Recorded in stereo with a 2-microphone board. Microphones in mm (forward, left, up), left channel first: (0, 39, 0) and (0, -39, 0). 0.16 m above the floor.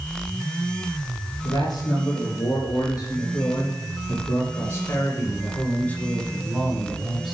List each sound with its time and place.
1.4 s a man speaking: 65° left (ahead or behind), 4 m; by 7.3 s 10° right (ahead or behind), 1.7 m